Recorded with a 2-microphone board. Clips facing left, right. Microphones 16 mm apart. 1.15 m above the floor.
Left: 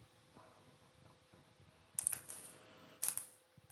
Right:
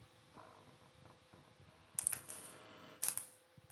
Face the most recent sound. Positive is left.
turn(degrees=-10)  # may be behind; listen again after turning